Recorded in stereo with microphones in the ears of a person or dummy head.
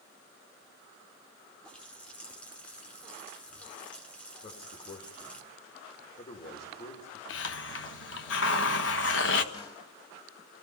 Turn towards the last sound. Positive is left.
turn(degrees=25)  # may be behind; listen again after turning